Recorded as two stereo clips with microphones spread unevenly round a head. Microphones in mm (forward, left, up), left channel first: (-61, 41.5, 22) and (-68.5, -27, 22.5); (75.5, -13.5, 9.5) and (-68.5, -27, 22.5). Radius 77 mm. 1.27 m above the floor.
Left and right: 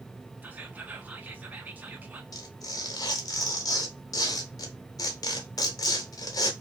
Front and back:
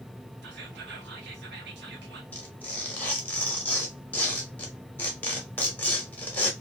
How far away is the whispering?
About 1.3 m.